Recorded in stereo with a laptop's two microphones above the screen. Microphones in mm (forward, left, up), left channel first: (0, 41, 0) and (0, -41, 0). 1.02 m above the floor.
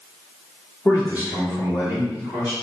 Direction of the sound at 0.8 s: 45° left (ahead or behind).